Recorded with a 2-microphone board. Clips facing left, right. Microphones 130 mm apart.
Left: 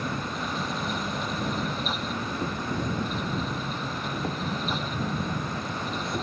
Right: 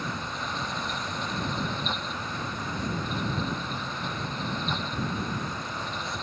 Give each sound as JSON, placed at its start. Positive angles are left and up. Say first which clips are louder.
{"t": 0.0, "sound": "an insect", "louder": "left 3 dB", "side_deg": 55}